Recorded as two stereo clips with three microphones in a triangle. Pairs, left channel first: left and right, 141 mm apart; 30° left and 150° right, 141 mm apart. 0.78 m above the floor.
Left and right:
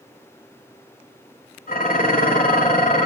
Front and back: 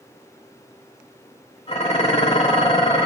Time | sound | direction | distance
1.7 | dishes clattering | 75° left | 2.0 m